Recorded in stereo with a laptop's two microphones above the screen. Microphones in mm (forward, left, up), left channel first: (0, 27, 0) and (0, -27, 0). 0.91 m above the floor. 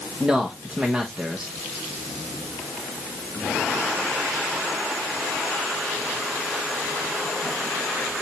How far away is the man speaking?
About 1.2 m.